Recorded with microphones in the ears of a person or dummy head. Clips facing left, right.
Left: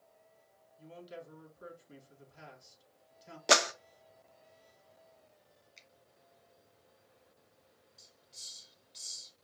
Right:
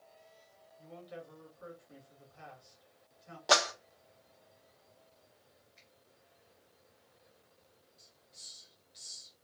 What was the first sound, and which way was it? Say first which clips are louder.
A man speaking: even; 35° left (ahead or behind).